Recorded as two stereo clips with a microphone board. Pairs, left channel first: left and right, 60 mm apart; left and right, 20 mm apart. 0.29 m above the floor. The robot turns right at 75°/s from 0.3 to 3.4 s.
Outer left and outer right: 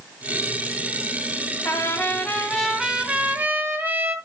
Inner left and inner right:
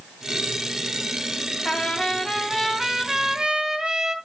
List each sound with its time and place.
1.6 s a trumpet: 100° left, 1.6 m; by 4.2 s 130° right, 1.6 m